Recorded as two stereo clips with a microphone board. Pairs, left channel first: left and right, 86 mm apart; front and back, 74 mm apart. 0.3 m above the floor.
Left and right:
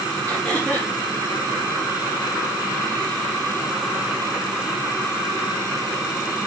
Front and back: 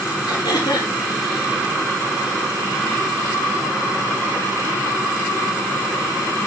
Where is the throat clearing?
15° left, 4 m.